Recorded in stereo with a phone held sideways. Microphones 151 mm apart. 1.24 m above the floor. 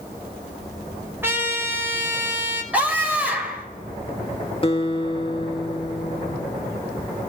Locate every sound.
1.2 s a trumpet: 15° right (ahead or behind), 4.5 m
2.7 s a scream: 10° right (ahead or behind), 6.5 m
4.6 s a guitar: 35° left (ahead or behind), 1.1 m